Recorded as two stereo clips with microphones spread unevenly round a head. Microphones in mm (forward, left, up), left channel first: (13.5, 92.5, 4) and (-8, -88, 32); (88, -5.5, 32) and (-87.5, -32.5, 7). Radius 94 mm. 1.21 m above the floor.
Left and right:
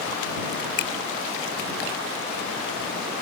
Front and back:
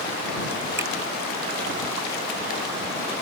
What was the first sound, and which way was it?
A finger snap, 110° left.